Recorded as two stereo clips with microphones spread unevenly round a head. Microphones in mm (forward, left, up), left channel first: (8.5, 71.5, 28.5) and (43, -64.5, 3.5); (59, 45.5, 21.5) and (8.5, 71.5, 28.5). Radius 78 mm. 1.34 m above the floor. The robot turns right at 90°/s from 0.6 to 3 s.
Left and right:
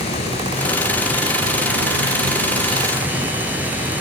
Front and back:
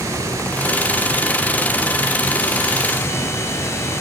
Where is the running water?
150° left, 3 m; by 4.0 s 5° left, 3 m.